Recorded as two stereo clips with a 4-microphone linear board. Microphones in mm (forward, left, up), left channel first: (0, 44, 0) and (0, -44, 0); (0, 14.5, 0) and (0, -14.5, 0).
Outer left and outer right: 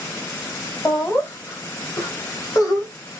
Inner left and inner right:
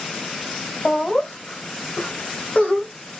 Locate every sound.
0.8 s laughter: 30° left (ahead or behind), 2.0 m; by 3.1 s 45° left (ahead or behind), 1.7 m